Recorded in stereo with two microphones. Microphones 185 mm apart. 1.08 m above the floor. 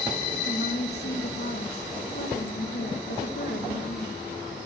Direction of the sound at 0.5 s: 60° left (ahead or behind).